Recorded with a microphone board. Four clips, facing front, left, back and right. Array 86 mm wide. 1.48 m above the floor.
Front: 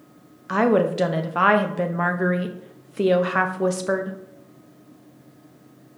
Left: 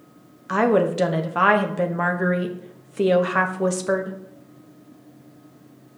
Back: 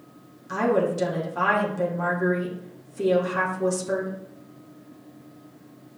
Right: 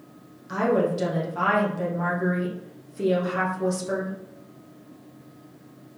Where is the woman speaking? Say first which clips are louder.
Left 4 dB, front 4 dB; 40° left, 0.7 m.